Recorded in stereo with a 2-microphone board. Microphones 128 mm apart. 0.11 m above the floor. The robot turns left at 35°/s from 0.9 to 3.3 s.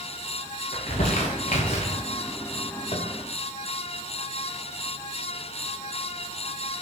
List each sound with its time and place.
0.7 s crumpling: 80° left, 6.5 m; by 2.0 s 60° left (ahead or behind), 6.5 m
2.9 s tapping: 60° left (ahead or behind), 3.5 m; by 3.1 s 65° left (ahead or behind), 3.5 m